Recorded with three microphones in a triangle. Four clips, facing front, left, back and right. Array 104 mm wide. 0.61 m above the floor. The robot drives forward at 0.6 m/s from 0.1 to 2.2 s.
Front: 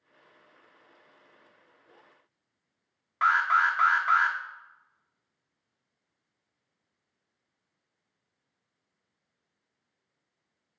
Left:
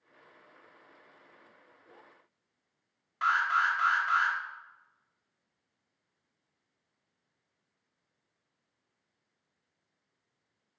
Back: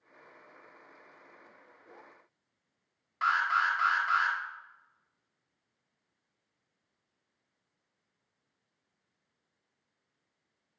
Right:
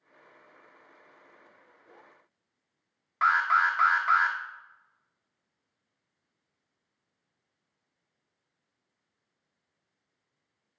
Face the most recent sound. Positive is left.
turn(degrees=-50)